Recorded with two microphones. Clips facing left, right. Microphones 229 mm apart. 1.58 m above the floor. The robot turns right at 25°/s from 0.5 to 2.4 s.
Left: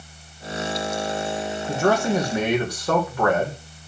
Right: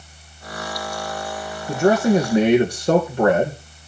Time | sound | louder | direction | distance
1.7 | a man speaking | right 5 dB | 10° right (ahead or behind) | 1.9 m